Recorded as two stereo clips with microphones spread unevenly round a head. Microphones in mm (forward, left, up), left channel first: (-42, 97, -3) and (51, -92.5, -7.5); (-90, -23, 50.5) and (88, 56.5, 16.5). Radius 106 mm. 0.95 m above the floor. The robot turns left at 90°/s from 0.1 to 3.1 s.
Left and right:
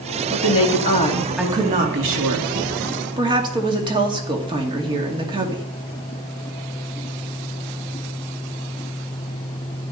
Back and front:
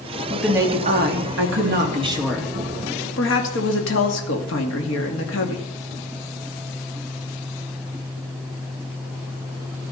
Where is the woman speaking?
120° left, 2 m; by 5.6 s 130° right, 2 m.